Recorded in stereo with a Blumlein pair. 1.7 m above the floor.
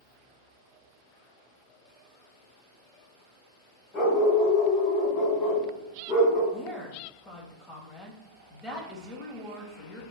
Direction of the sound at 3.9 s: 35° left.